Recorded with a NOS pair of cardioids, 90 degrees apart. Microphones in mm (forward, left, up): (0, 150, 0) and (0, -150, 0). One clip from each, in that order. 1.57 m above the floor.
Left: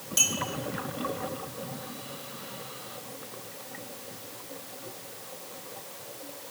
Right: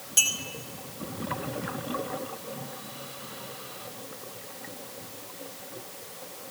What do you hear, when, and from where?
0.2 s a clink: 10° right, 5.5 m